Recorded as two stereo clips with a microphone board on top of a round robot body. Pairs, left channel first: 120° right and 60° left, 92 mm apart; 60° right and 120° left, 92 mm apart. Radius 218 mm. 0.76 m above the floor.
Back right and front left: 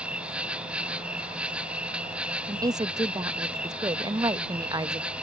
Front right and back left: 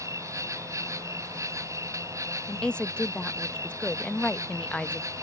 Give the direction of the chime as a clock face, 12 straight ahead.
No chime in this recording.